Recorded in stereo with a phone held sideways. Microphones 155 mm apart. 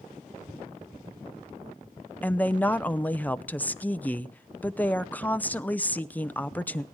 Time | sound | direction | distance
2.2 | a woman speaking | 10° left (ahead or behind) | 0.6 m